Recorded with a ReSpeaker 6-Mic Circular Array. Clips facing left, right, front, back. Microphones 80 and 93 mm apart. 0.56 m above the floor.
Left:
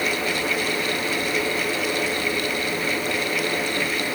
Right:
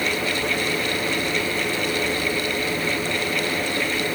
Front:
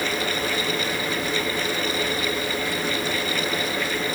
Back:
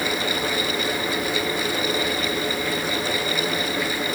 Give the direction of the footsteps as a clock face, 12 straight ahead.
I don't hear footsteps.